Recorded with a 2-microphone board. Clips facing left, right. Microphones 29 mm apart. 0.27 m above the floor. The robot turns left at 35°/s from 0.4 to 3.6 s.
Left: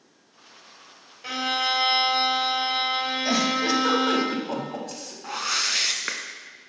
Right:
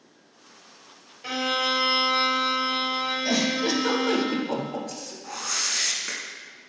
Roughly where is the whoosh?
Left.